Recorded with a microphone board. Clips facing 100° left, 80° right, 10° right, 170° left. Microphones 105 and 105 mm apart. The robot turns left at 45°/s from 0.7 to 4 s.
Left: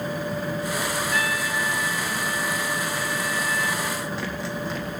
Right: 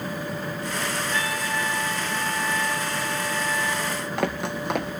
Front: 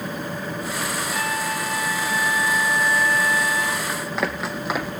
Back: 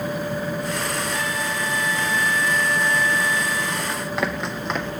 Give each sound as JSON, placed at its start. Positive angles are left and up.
{"t": 1.1, "sound": "a trumpet", "azimuth_deg": -25, "distance_m": 5.5}
{"t": 3.9, "sound": "running footsteps", "azimuth_deg": -100, "distance_m": 3.5}